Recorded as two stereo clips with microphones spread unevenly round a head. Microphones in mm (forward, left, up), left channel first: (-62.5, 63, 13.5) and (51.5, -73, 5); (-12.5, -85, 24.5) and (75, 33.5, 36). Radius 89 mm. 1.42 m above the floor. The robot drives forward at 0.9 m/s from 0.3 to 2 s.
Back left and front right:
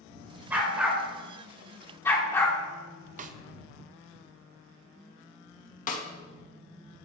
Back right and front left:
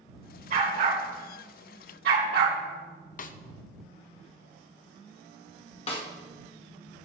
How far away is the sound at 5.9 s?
About 1.4 m.